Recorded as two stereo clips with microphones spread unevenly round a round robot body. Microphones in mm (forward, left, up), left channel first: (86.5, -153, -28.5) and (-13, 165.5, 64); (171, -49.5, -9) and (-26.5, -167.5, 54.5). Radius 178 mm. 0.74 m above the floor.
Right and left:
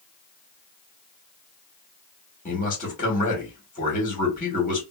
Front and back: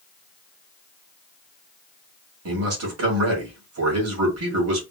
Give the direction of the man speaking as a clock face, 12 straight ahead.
4 o'clock.